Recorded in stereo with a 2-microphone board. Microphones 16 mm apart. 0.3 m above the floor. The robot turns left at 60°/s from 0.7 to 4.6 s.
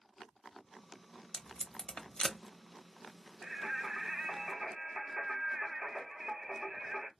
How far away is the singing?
About 1.6 m.